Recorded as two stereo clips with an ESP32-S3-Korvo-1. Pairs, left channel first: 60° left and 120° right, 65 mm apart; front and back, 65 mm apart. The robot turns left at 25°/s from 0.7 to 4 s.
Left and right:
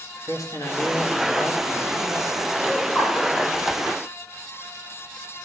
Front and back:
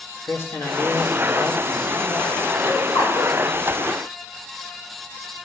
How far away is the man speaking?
About 1.4 m.